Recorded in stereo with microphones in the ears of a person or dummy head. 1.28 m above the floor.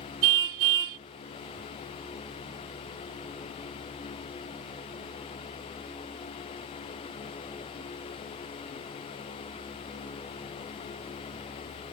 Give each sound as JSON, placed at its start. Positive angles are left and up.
{"t": 0.2, "sound": "a car horn", "side_deg": -70}